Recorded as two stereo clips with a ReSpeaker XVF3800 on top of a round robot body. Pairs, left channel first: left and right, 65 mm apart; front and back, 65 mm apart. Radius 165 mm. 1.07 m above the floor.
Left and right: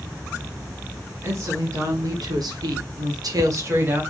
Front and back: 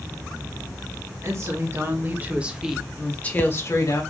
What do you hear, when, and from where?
1.2 s a woman speaking: 135° right, 2.5 m; by 4.0 s 35° right, 1.8 m